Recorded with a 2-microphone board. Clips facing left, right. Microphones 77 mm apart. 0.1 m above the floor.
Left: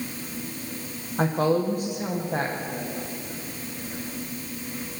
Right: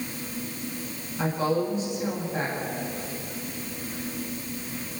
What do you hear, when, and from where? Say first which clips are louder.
1.2 s a woman speaking: left 3 dB; 55° left (ahead or behind), 6.5 m